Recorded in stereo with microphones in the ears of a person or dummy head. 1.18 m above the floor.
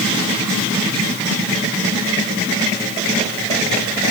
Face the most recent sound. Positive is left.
No sound to turn to.